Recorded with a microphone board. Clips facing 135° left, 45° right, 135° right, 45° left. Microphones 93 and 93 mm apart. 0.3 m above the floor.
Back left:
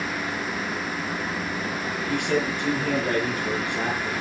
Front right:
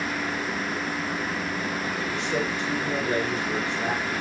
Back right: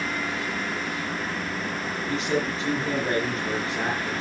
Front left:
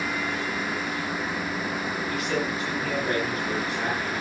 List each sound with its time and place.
2.1 s a man speaking: 165° left, 9.5 m